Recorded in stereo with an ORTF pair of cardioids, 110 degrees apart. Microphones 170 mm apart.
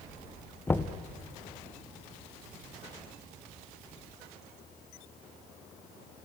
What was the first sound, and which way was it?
Knocking, 15° left.